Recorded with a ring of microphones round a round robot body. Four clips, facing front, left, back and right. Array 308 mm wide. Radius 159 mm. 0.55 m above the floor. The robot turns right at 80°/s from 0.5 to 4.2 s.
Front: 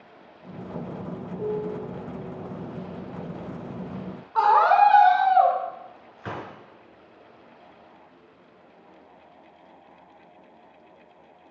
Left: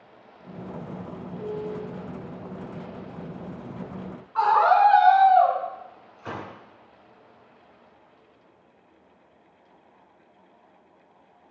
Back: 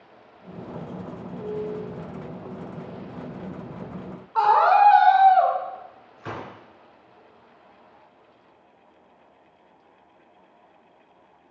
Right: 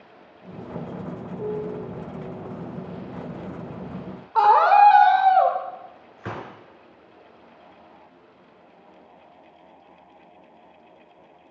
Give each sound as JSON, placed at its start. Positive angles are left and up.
{"t": 1.4, "sound": "a piano", "azimuth_deg": -50, "distance_m": 0.8}
{"t": 4.3, "sound": "a scream", "azimuth_deg": -85, "distance_m": 2.5}
{"t": 6.2, "sound": "a gunshot", "azimuth_deg": -80, "distance_m": 3.5}